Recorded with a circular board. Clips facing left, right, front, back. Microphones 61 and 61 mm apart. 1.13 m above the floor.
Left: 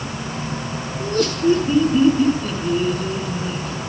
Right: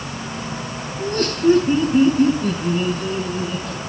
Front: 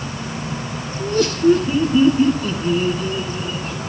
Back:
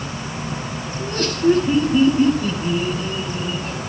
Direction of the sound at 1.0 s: 135° right.